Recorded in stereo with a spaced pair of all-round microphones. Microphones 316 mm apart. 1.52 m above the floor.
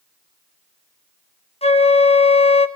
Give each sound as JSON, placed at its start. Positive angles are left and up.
{"t": 1.6, "sound": "a flute", "side_deg": 20, "distance_m": 1.0}